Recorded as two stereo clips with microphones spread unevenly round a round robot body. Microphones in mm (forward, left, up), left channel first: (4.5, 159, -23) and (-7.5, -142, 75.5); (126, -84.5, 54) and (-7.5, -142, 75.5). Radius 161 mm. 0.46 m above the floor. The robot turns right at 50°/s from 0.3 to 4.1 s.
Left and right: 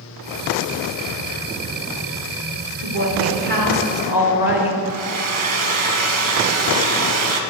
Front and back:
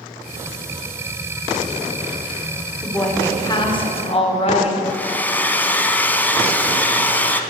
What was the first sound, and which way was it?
A woman speaking, 60° right.